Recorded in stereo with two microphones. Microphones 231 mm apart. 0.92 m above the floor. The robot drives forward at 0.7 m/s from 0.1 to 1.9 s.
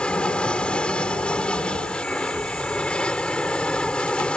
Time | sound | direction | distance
0.0 | an aircraft | 5° left (ahead or behind) | ?